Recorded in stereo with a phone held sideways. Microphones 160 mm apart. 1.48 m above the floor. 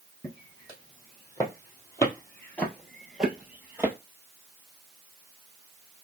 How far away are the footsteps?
About 3 m.